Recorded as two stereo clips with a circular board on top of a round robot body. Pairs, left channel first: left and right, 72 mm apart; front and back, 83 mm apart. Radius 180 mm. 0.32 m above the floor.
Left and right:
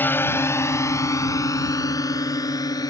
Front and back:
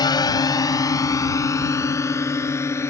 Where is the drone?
30° left; by 2.9 s 60° left.